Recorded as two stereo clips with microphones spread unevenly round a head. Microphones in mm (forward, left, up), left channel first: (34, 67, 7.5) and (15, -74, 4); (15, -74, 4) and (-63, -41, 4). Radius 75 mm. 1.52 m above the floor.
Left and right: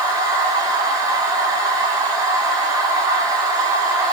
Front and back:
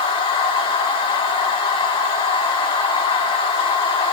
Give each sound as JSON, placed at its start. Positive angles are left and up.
{"t": 0.0, "sound": "a machine running", "azimuth_deg": -35, "distance_m": 4.0}